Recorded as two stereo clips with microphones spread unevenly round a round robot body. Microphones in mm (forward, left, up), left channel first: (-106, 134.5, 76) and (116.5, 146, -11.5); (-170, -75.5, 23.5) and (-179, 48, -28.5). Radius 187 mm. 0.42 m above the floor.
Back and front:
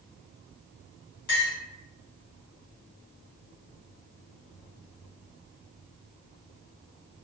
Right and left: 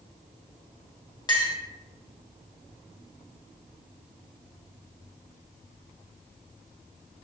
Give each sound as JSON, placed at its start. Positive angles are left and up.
{"t": 1.3, "sound": "a clink", "azimuth_deg": -155, "distance_m": 1.4}